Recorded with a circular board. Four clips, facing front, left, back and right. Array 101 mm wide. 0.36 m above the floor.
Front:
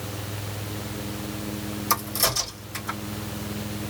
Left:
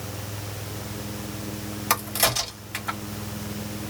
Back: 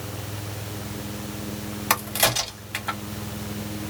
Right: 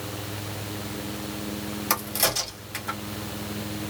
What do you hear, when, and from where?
1.9 s a crack: 160° left, 2.0 m